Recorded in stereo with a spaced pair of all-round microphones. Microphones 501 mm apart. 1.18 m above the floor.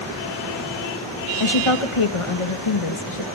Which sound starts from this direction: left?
A woman speaking, at 1.4 s.